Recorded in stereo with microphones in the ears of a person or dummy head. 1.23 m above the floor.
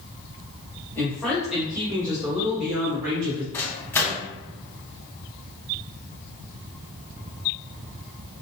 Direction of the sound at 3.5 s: 10° left (ahead or behind).